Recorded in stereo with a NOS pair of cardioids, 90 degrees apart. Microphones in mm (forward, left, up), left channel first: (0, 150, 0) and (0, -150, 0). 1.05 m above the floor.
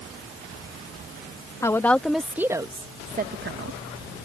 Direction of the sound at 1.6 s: 10° left.